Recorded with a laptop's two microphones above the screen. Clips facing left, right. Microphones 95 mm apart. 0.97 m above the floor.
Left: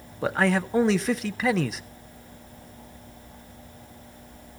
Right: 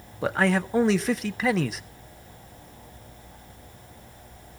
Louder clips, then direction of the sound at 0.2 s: Even; centre (ahead or behind).